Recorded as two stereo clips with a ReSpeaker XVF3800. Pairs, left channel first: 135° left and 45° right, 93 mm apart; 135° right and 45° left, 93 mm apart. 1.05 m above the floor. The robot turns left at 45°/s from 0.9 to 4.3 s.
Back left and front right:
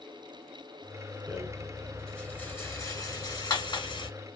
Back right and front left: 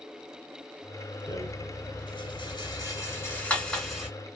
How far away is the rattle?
About 1.6 m.